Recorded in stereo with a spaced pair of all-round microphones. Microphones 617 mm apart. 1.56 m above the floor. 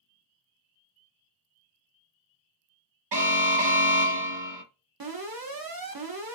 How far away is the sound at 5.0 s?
About 0.7 m.